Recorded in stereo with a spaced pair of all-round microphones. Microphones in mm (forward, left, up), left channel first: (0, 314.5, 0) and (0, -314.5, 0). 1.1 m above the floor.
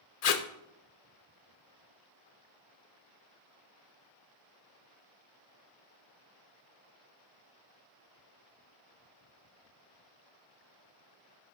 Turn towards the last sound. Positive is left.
turn(degrees=75)  # may be behind; listen again after turning